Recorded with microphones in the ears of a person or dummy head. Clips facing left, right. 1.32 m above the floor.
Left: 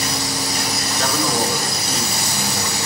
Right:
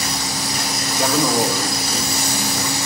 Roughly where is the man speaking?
Centre.